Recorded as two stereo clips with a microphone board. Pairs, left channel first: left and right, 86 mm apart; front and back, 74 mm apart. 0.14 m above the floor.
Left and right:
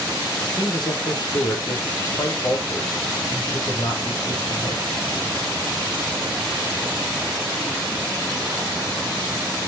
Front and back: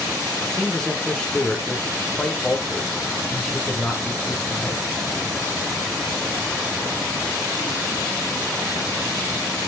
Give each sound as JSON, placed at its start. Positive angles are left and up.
{"t": 0.4, "sound": "a man speaking", "azimuth_deg": 75, "distance_m": 3.0}